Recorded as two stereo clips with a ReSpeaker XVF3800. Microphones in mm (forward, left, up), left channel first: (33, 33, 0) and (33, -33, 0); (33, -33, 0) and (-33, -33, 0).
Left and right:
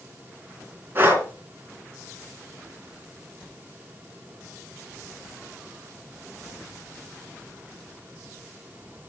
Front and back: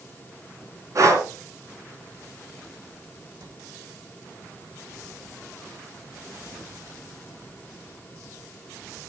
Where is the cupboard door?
155° left, 9 m.